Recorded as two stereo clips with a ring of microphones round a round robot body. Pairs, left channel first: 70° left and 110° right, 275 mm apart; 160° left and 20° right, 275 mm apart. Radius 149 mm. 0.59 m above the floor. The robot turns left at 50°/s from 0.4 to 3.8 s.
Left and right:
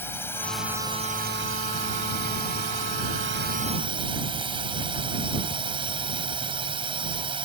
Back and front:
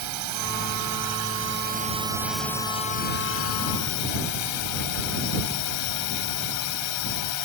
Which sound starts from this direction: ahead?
A drone, at 0.0 s.